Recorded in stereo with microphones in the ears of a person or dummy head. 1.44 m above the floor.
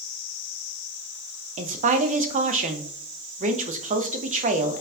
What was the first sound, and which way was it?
A woman speaking, 40° right (ahead or behind).